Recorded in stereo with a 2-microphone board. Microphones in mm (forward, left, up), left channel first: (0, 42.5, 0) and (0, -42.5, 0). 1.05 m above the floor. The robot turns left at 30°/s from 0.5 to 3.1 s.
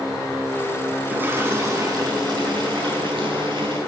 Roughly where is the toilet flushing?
Ahead.